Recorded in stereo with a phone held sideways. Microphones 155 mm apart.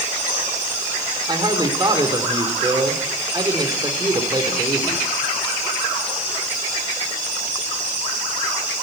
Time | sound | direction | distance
1.3 | a man speaking | 30° right (ahead or behind) | 3 m